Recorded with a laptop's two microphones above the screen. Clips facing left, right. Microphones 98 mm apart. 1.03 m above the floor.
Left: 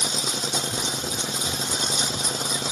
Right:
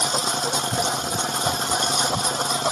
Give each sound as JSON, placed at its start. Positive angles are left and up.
{"t": 0.0, "sound": "a lawn mower", "side_deg": -60}